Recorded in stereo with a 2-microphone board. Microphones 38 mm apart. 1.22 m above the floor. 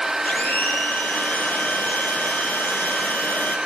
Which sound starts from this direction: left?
A blender, at 0.2 s.